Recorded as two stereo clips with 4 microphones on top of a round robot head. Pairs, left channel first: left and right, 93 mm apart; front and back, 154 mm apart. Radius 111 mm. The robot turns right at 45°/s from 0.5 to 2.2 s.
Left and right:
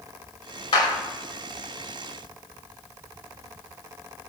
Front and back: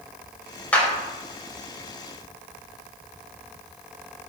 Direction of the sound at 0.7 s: 80° left.